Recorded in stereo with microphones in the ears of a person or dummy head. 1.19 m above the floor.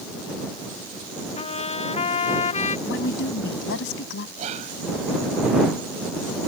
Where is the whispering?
35° right (ahead or behind).